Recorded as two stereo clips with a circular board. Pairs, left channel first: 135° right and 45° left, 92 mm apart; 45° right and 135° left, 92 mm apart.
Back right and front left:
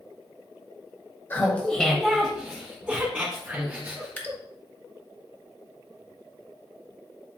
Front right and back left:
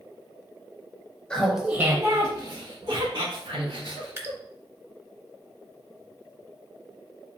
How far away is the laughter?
About 1.2 m.